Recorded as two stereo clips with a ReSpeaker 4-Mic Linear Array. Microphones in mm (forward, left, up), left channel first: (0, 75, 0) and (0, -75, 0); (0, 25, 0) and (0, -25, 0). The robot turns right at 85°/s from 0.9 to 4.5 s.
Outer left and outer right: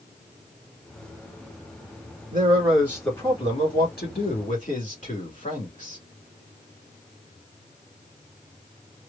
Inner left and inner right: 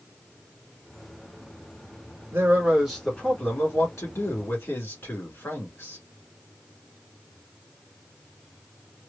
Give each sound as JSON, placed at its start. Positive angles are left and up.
{"t": 2.3, "sound": "a man speaking", "azimuth_deg": -60, "distance_m": 2.5}